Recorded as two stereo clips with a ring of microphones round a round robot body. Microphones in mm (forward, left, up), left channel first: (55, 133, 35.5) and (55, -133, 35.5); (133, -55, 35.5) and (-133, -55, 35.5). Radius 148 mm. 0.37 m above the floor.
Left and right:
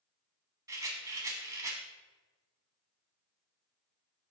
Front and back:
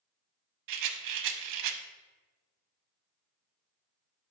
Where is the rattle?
170° right, 0.7 m.